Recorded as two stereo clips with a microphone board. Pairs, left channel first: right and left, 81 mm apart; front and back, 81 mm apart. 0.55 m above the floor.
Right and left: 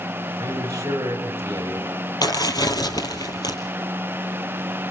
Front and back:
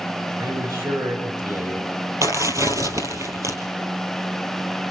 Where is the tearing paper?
130° right, 3 m.